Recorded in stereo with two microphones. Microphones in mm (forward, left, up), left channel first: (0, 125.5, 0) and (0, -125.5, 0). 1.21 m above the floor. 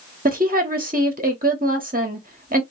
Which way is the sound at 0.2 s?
35° right (ahead or behind).